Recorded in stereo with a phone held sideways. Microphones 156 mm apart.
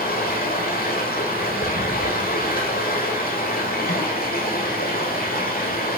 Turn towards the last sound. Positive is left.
turn(degrees=80)